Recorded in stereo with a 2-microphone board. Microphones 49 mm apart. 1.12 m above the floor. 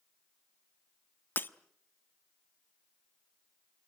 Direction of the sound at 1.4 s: 40° left (ahead or behind).